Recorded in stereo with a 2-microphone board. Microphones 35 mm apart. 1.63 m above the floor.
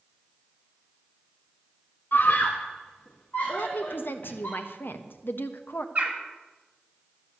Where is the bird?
40° right (ahead or behind), 2.5 m.